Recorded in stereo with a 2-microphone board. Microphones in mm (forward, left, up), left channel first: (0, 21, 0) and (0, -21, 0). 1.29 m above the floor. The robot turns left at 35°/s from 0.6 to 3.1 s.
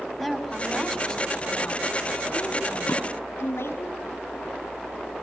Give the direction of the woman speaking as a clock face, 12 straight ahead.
6 o'clock.